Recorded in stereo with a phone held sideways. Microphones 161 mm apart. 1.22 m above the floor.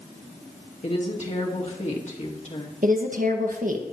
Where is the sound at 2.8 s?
55° right (ahead or behind), 1.5 m.